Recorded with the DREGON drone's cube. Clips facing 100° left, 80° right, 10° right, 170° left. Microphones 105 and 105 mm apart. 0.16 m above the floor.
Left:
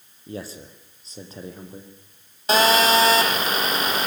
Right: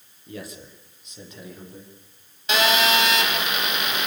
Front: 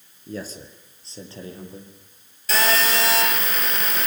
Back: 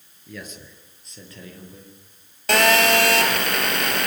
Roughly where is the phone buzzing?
Behind left.